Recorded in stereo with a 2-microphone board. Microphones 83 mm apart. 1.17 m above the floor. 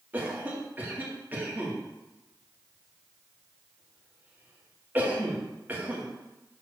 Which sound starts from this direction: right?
A cough, at 0.1 s.